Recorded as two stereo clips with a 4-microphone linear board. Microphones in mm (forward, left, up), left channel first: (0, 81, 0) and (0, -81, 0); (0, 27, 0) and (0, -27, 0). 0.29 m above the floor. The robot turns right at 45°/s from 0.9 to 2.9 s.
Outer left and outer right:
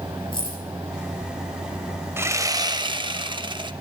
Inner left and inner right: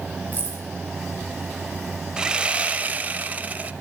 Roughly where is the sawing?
Behind right.